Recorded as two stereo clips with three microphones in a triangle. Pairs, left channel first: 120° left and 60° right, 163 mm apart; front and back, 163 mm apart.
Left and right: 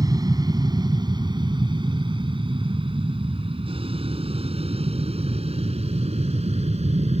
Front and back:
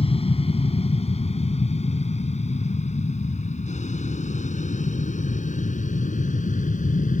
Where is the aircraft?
10° right; by 7.2 s 20° right.